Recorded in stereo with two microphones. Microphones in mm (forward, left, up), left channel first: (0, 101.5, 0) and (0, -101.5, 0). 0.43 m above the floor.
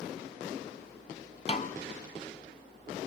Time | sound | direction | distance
1.5 | a snare drum | 35° left (ahead or behind) | 1.0 m